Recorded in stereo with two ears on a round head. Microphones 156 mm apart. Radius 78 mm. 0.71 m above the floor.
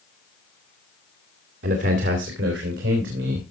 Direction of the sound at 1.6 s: 65° right (ahead or behind).